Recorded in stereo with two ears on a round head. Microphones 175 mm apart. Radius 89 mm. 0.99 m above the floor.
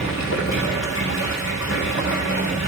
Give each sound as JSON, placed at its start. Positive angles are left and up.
{"t": 0.0, "sound": "running water", "side_deg": 70, "distance_m": 3.0}